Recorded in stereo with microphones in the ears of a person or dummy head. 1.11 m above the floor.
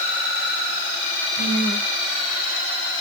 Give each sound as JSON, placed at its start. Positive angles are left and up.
{"t": 1.4, "sound": "a woman speaking", "side_deg": 75, "distance_m": 4.5}